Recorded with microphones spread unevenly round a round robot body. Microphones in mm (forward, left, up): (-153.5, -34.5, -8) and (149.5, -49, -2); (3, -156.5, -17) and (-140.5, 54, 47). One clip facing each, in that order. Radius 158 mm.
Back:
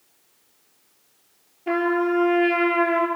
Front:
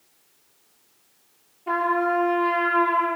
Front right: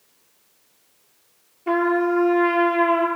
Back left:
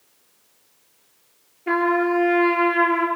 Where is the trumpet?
135° right, 5.5 m.